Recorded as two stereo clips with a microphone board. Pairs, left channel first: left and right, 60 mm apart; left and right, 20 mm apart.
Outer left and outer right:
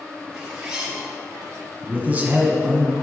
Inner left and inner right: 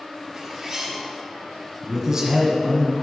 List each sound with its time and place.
0.3 s a zipper: 10° right (ahead or behind), 2.5 m
1.8 s a man speaking: 30° right (ahead or behind), 1.5 m